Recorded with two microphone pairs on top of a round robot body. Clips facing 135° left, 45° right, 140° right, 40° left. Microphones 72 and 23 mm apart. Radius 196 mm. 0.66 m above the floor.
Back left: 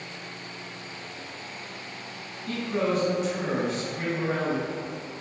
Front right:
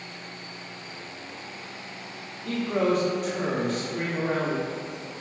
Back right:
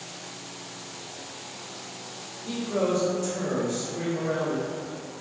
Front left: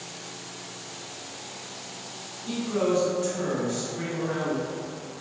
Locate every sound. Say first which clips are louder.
2.5 s a man speaking: front right 3 dB, front left 1 dB; 30° right, 1.7 m